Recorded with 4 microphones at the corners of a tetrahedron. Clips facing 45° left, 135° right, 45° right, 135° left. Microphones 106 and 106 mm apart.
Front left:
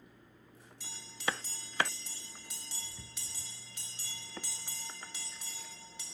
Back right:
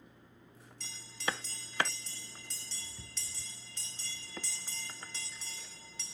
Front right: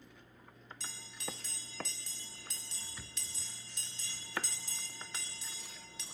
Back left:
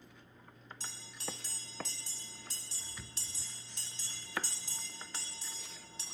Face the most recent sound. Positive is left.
turn(degrees=115)